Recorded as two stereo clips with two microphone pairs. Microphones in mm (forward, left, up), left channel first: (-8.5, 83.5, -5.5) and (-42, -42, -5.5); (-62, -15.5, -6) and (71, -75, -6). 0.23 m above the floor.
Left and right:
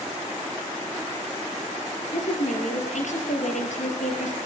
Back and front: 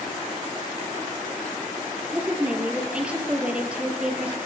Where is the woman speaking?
60° left, 4.5 m.